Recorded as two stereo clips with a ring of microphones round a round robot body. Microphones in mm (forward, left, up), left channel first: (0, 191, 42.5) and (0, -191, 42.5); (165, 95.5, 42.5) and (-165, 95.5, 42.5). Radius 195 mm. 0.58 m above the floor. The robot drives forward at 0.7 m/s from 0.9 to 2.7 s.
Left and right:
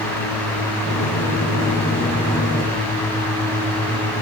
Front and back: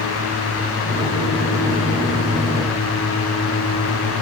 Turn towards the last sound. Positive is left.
No sound to turn to.